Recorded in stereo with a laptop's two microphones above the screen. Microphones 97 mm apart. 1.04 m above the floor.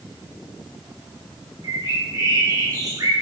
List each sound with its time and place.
1.6 s a bird: 40° right (ahead or behind), 4.5 m